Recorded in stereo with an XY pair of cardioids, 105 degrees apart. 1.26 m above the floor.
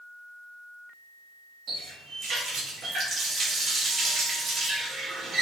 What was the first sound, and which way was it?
A running tap, 60° right.